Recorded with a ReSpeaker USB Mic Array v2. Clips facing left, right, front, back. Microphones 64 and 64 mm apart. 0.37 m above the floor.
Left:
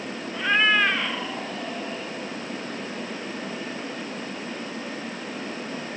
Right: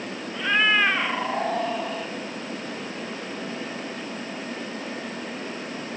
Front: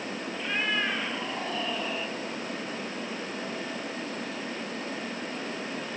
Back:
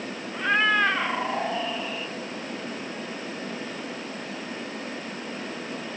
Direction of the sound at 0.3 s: 175° left.